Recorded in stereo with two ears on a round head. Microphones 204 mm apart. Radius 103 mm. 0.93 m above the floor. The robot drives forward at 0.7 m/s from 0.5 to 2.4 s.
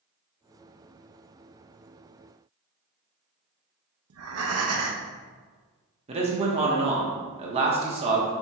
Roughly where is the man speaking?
Right.